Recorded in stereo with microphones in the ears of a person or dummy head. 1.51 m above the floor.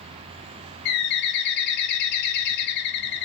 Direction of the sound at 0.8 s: 60° left (ahead or behind).